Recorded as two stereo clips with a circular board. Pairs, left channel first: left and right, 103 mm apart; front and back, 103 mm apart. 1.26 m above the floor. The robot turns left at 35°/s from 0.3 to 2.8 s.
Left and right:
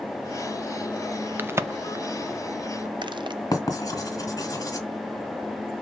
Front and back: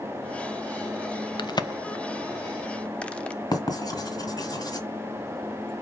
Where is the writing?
45° left, 2 m.